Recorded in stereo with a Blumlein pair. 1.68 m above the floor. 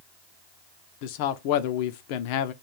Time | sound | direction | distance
1.0 | a man speaking | 45° left | 0.6 m